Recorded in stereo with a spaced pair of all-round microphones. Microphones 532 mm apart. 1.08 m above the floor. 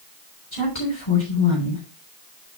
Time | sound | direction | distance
0.5 | a woman speaking | 60° left (ahead or behind) | 3.5 m